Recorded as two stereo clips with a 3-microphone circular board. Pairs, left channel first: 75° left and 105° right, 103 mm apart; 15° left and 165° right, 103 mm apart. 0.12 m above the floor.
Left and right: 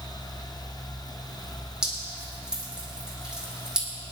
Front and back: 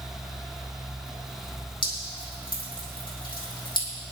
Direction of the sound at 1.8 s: 20° right.